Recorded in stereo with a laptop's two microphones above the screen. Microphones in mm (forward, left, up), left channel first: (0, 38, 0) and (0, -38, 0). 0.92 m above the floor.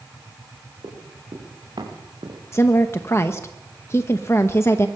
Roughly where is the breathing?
No breathing in this recording.